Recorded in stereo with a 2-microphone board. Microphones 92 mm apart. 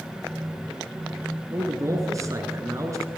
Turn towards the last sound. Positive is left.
turn(degrees=-35)  # may be behind; listen again after turning